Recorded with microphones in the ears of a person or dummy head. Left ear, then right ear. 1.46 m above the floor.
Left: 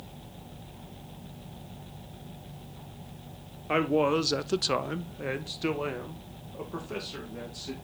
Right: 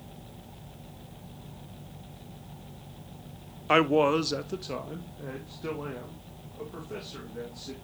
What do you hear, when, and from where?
3.7 s a man speaking: 35° right (ahead or behind), 0.7 m; by 7.7 s 85° left, 3 m